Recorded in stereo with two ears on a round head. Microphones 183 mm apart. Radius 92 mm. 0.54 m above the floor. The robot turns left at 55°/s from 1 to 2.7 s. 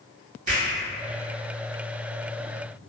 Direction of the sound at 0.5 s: 40° right (ahead or behind).